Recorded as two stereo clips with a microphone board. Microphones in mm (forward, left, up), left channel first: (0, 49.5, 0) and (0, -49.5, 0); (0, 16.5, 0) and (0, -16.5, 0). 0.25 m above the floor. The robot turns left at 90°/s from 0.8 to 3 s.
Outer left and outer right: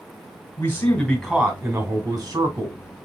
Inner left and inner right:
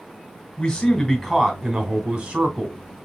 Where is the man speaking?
35° left, 1.3 m; by 2.8 s 140° right, 1.3 m.